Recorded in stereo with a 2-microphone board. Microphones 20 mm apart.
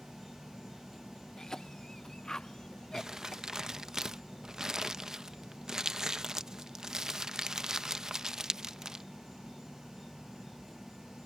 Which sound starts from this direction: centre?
An insect, at 0.0 s.